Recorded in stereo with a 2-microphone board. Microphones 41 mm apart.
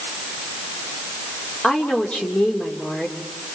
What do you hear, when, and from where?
1.6 s a woman speaking: 25° left (ahead or behind), 3 m